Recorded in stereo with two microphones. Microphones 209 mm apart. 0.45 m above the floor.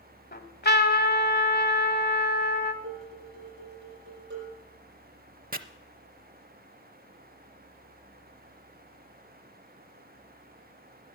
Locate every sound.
0.3 s a trumpet: 55° left (ahead or behind), 1.1 m
2.8 s dishes clattering: 60° right (ahead or behind), 7.5 m
5.5 s chopping: 45° right (ahead or behind), 0.6 m